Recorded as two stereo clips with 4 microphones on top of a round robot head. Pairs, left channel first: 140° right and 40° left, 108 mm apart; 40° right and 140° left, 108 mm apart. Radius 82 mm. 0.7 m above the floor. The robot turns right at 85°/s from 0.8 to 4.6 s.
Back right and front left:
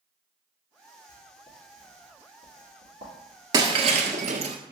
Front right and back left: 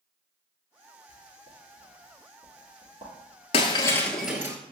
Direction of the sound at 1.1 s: 85° right.